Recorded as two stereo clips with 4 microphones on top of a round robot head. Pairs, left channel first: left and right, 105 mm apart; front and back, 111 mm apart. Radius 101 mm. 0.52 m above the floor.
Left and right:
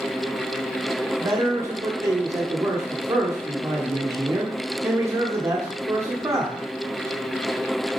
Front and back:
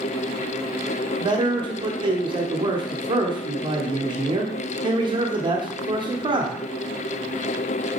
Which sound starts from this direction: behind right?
A man speaking, at 1.2 s.